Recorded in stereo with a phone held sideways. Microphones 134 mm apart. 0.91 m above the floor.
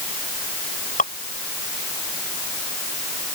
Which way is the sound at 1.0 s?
80° left.